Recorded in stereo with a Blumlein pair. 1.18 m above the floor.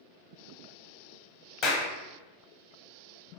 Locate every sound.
1.6 s a clap: 30° left, 0.8 m